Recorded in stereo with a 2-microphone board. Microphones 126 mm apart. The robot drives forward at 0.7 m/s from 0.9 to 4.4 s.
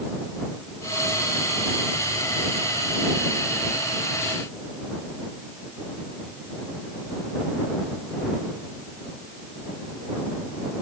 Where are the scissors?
I don't hear scissors.